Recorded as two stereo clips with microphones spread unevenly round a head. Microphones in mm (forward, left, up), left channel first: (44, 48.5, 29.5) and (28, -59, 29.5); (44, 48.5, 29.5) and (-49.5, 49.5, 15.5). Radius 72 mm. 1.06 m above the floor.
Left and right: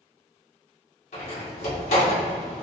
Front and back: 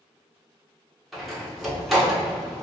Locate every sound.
1.1 s a door slam: 90° left, 1.8 m